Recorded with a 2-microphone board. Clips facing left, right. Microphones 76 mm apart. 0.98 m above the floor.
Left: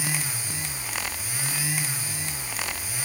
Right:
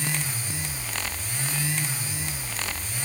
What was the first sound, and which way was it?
Only background noise.